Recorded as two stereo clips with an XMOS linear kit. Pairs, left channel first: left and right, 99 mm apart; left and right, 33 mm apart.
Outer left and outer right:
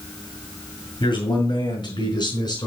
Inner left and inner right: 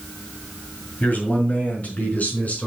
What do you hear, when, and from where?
1.0 s a man speaking: 55° left (ahead or behind), 5.5 m; by 2.7 s 45° left (ahead or behind), 4.5 m